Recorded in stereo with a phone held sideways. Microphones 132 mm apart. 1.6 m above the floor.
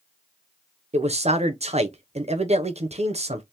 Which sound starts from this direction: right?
A man speaking, at 0.9 s.